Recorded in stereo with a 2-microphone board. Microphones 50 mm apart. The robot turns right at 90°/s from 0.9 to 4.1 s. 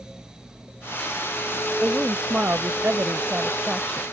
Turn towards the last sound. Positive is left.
turn(degrees=30)